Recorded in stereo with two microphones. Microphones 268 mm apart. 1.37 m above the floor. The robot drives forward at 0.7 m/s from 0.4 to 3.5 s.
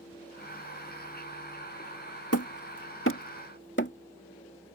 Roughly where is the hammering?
Left.